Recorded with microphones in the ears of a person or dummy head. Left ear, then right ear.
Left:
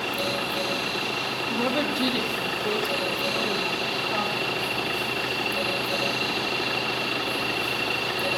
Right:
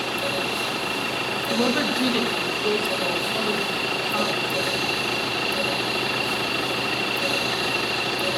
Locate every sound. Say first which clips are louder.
1.5 s a woman speaking: right 4 dB; centre (ahead or behind), 2.0 m; by 4.7 s 10° right (ahead or behind), 3.5 m